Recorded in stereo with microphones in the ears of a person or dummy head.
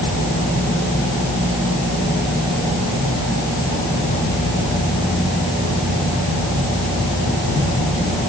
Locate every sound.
Only background noise.